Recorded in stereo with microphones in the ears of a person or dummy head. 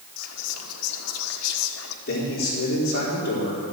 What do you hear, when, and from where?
0.2 s whispering: 85° left, 1.5 m
2.1 s a man speaking: 55° left (ahead or behind), 4 m